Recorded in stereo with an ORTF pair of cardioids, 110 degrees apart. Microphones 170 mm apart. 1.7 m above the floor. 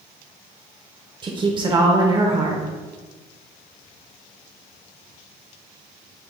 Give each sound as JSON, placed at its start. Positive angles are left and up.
{"t": 1.2, "sound": "a woman speaking", "azimuth_deg": -30, "distance_m": 0.8}